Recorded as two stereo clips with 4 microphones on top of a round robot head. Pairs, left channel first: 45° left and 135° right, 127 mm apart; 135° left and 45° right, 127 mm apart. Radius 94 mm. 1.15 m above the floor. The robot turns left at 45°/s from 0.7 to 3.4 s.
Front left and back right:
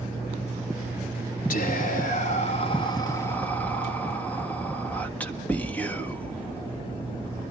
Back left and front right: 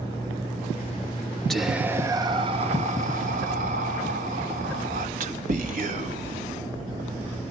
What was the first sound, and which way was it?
Whispering, 50° left.